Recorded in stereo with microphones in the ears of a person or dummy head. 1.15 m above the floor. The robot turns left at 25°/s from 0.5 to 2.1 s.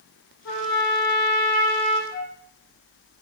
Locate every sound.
0.5 s a trumpet: 80° left, 1.1 m; by 2.0 s 40° left, 1.1 m
2.1 s a flute: 50° left (ahead or behind), 1.1 m